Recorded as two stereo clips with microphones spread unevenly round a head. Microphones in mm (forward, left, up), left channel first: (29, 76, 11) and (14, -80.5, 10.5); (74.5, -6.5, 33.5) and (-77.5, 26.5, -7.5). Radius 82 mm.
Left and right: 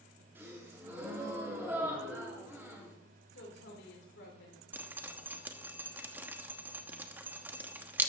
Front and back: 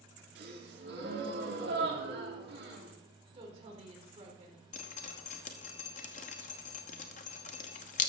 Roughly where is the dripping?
Ahead.